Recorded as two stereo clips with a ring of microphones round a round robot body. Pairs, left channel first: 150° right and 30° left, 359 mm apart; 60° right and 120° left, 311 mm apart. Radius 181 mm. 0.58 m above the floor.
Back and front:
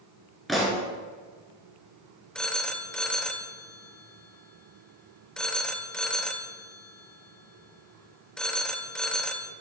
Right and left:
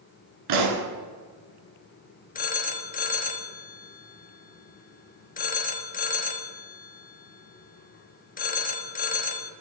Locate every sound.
0.5 s a pop: 120° left, 1.8 m
2.4 s a phone ringing: 65° right, 0.6 m